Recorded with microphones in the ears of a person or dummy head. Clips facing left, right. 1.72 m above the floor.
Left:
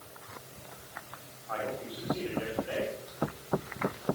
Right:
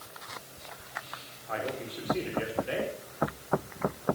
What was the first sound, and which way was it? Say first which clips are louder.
A man speaking: right 1 dB; 30° right (ahead or behind).